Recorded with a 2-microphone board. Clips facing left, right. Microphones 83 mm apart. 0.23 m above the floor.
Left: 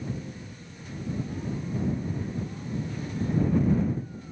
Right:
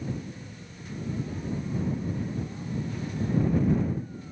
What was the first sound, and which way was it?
Only background noise.